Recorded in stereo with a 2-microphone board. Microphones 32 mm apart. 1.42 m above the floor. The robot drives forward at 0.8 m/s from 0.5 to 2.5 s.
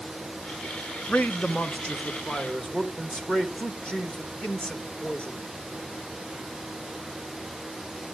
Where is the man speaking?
50° left (ahead or behind), 0.7 m; by 5.5 s 20° left (ahead or behind), 1.7 m.